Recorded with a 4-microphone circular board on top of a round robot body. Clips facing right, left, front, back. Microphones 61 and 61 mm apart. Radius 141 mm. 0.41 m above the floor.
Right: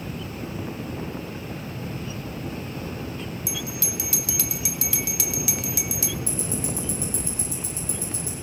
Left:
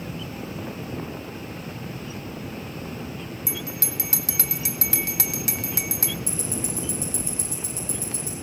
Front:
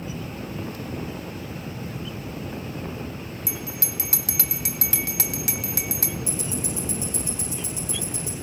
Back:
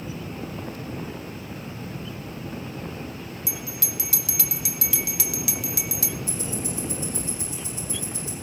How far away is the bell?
About 1.0 m.